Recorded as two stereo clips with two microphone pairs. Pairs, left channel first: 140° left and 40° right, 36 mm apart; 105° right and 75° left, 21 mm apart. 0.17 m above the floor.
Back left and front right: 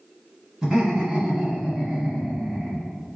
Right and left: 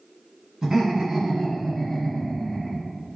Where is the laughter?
35° left, 1.8 m; by 2.9 s 120° right, 1.6 m.